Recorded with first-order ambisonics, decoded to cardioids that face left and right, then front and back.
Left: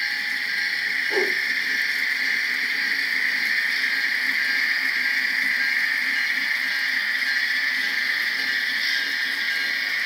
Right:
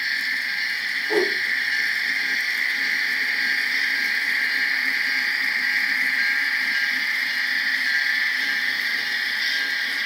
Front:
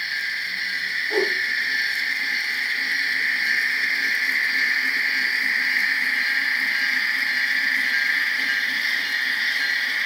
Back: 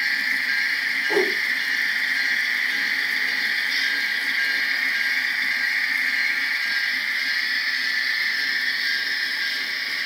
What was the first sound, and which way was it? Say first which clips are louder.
A whoosh: right 3 dB, back 1 dB; 155° right.